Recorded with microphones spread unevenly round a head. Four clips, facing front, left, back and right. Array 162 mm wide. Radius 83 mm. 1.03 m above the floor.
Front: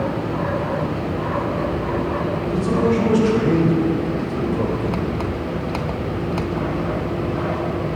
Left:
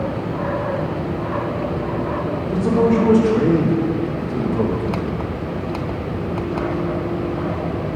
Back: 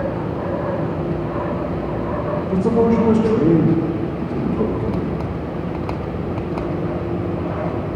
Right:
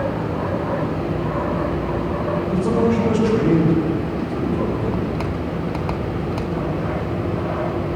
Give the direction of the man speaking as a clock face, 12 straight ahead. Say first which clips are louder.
Left 3 dB, back 4 dB; 7 o'clock.